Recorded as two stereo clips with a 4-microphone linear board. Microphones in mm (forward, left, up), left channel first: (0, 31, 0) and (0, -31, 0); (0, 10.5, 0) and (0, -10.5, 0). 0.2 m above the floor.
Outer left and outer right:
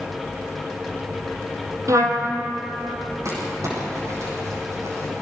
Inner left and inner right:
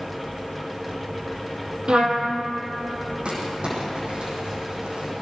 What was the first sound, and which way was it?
A trumpet, 55° right (ahead or behind).